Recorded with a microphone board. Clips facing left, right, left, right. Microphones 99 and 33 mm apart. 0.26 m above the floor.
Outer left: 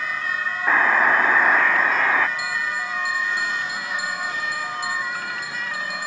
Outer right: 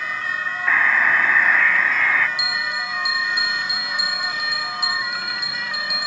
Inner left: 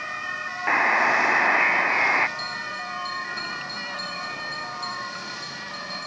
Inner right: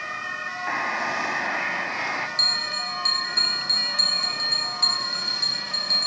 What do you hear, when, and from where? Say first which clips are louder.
0.7 s a buzzer: outer left 1 dB, inner left 7 dB; 30° left (ahead or behind)
2.4 s a bell: even, inner right 6 dB; 70° right (ahead or behind)